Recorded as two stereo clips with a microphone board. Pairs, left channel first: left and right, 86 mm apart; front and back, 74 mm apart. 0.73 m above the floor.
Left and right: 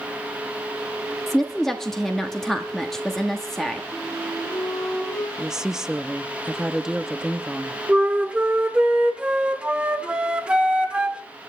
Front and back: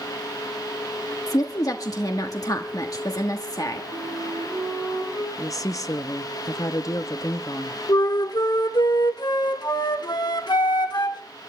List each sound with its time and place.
1.3 s a woman speaking: 5° left, 1.3 m
3.9 s a flute: 150° left, 4.5 m
5.4 s a woman speaking: 10° right, 0.8 m
7.9 s a flute: 10° right, 1.5 m